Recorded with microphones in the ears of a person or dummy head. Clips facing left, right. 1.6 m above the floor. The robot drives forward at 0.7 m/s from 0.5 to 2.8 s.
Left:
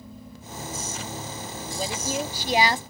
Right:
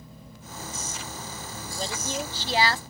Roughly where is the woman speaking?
Centre.